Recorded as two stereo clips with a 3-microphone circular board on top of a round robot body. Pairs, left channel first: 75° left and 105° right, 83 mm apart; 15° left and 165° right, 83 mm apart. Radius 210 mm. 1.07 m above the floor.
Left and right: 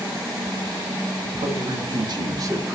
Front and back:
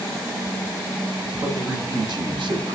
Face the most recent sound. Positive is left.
turn(degrees=-170)